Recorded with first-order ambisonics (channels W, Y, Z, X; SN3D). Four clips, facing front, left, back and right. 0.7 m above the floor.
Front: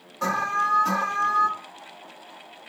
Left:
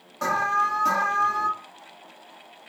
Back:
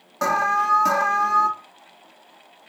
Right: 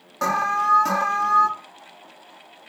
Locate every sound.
0.2 s an alarm: 150° right, 1.2 m